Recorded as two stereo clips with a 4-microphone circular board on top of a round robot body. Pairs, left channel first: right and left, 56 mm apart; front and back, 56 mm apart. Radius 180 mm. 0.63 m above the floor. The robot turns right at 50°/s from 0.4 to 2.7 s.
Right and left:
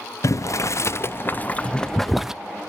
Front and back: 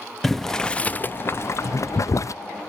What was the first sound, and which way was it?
Boiling, 85° right.